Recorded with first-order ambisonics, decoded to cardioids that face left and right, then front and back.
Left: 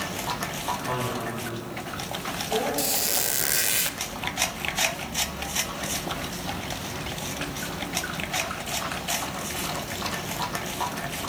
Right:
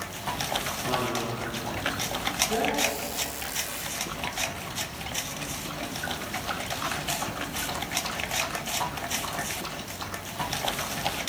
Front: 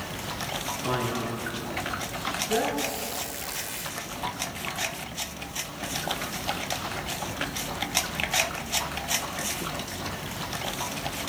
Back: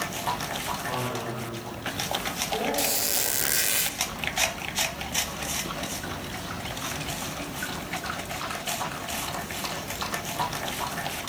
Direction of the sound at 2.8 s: 130° left.